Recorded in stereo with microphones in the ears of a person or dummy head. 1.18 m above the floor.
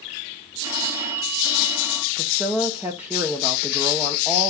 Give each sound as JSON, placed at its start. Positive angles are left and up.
{"t": 0.6, "sound": "a phone ringing", "side_deg": -15, "distance_m": 1.1}
{"t": 2.2, "sound": "a woman speaking", "side_deg": -5, "distance_m": 0.8}